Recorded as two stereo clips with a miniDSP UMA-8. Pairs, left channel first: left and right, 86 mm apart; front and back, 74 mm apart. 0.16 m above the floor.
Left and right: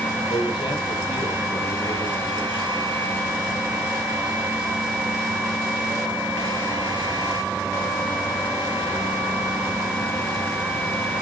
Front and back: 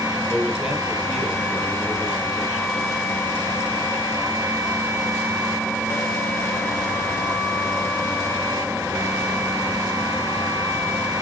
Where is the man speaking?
100° left, 3 m.